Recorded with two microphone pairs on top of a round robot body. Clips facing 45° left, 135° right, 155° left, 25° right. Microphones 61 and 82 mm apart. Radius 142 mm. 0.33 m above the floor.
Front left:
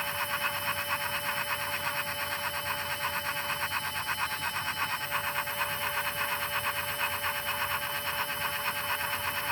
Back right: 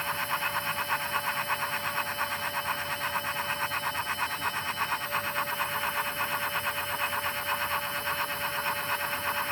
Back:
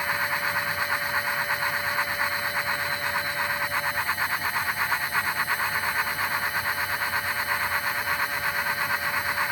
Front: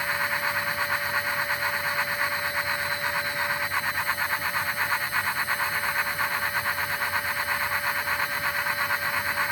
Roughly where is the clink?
No clink in this recording.